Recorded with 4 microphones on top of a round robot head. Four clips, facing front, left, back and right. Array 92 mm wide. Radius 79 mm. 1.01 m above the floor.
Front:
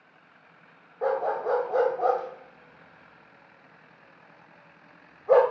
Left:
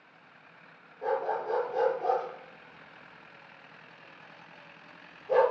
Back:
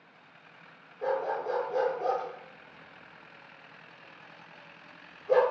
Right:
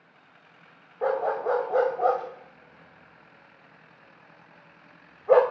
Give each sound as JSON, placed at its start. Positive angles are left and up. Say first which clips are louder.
{"t": 1.0, "sound": "a dog barking", "louder": "right 5 dB, front 4 dB", "azimuth_deg": -55, "distance_m": 1.5}